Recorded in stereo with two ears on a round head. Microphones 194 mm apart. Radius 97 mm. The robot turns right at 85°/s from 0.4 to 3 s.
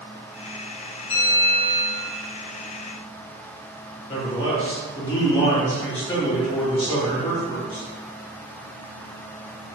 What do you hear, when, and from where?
1.1 s a bell: 125° left, 1.3 m; by 2.1 s 150° right, 1.3 m
4.1 s a man speaking: 25° left (ahead or behind), 1.1 m